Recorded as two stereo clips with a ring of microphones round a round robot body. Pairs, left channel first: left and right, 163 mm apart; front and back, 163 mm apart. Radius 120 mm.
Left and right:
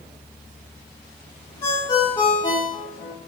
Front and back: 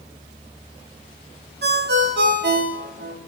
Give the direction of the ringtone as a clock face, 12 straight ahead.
7 o'clock.